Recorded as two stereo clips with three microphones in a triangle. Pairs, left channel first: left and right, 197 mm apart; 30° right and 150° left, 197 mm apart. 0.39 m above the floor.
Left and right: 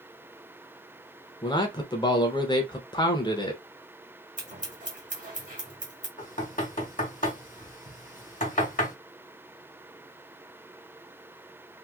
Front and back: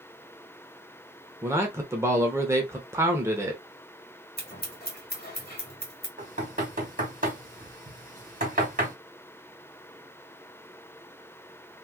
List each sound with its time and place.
1.4 s a man speaking: 100° left, 0.8 m
4.4 s scissors: 50° right, 1.5 m
6.2 s knocking: 120° left, 1.6 m